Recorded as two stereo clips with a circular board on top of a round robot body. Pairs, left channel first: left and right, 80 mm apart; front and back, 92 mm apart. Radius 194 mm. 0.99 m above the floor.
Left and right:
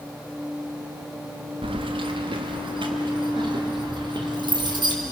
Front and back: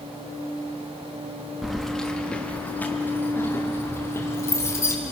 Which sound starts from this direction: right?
Keys jangling, at 1.6 s.